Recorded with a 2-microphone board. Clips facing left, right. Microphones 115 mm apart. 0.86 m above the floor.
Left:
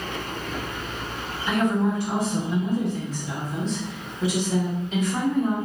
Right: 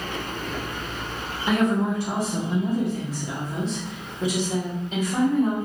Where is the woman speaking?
40° right (ahead or behind), 1.0 m; by 5.5 s 5° right (ahead or behind), 1.6 m.